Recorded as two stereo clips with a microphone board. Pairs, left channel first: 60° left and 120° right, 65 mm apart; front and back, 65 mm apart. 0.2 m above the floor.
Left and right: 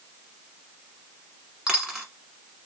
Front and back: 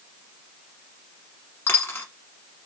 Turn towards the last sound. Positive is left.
turn(degrees=-45)